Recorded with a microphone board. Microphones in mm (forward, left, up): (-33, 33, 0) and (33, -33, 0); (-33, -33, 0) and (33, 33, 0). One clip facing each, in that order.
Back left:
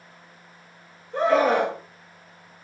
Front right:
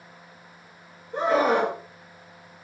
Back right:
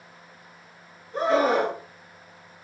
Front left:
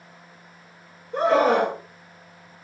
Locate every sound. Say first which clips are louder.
1.1 s a scream: back left 2 dB, front left 3 dB; 25° left, 3.5 m